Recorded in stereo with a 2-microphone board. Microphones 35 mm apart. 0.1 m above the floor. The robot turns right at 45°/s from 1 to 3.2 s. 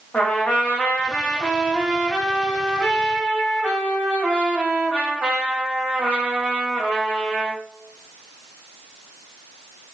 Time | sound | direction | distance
0.1 | a trumpet | 130° left | 2.5 m